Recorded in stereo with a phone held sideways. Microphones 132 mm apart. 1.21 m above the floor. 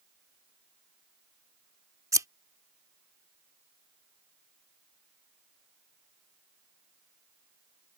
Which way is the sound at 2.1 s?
25° right (ahead or behind).